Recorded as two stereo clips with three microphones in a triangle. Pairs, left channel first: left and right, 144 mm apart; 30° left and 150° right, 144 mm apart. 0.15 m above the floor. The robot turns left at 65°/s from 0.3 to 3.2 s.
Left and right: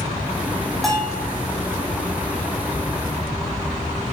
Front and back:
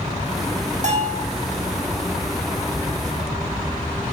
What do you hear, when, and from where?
0.8 s a bell: straight behind, 4 m; by 1.2 s 155° left, 4 m